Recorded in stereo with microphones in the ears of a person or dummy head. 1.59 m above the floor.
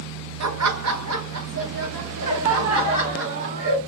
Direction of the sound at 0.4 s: 80° right.